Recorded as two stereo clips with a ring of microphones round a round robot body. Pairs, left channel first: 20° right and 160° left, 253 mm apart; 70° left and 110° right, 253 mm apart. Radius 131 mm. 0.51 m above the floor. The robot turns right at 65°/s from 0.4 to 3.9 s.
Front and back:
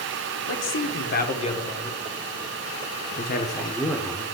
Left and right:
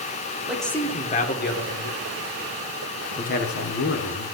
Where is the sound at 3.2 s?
15° left, 1.1 m; by 4.2 s 60° left, 1.1 m.